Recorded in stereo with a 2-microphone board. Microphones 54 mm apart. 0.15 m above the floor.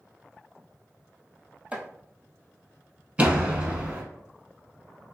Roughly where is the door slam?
Right.